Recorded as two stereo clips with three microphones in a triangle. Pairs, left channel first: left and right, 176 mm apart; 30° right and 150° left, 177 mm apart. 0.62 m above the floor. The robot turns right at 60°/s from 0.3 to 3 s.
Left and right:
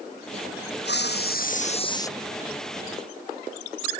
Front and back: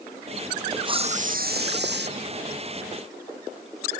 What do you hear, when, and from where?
0.8 s a hiss: 85° left; by 2.1 s 160° left